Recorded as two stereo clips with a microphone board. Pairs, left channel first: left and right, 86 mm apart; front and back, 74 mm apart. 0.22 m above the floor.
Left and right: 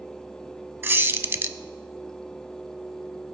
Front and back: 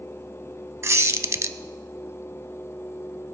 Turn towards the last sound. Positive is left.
turn(degrees=-145)